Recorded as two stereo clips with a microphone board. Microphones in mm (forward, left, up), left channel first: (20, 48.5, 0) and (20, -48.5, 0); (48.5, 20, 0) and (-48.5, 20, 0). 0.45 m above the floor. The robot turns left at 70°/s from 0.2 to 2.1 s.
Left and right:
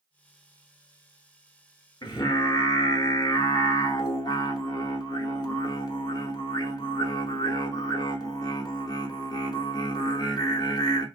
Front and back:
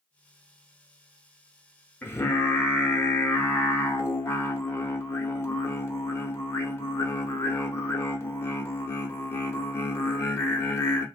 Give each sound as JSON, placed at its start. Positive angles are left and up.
{"t": 2.0, "sound": "singing", "azimuth_deg": 65, "distance_m": 0.8}